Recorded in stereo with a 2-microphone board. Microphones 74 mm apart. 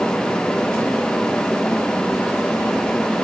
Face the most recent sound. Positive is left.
No sound to turn to.